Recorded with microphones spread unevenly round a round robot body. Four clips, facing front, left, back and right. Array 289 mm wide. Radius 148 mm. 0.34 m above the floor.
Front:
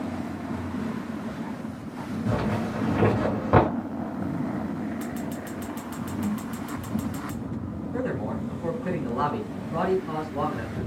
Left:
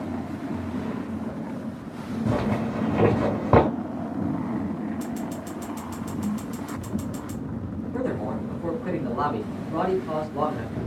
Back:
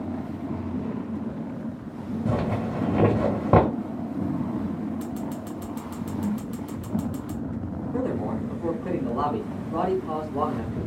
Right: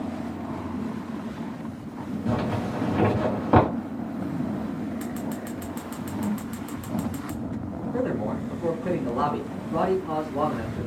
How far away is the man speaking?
About 1.7 m.